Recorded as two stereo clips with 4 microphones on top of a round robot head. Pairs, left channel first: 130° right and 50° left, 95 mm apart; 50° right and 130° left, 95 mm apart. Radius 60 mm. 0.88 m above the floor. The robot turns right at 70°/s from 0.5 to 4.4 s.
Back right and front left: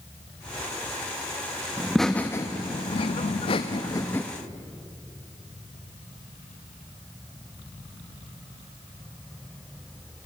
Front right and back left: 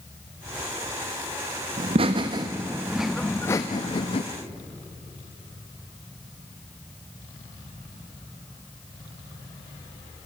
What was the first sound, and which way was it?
Laughter, 130° left.